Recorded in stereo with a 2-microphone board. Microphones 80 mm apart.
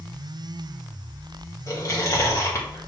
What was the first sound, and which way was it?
Chewing, 40° left (ahead or behind).